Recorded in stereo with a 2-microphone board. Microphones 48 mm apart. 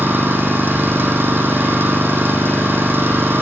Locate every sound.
0.0 s an engine running: 50° right (ahead or behind), 5 m